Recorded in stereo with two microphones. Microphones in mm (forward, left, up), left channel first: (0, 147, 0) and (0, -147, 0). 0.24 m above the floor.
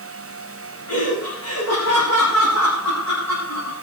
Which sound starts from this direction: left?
Laughter, at 0.9 s.